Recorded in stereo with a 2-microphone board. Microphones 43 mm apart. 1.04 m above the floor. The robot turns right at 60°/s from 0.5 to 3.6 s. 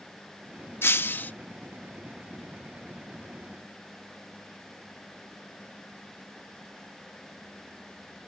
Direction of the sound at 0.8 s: 100° left.